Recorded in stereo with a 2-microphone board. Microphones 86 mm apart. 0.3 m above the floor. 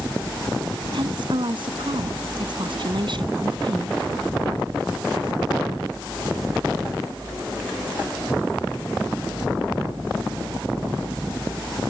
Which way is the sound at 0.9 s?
65° right (ahead or behind).